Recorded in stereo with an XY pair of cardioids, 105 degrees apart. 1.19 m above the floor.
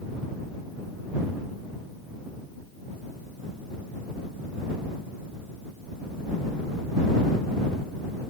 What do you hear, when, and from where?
Only background noise.